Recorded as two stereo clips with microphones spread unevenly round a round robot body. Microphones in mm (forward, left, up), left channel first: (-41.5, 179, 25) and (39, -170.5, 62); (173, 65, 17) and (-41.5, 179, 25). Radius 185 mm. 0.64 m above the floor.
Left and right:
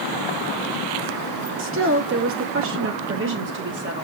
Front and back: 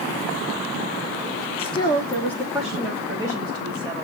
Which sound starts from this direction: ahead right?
A woman speaking, at 1.6 s.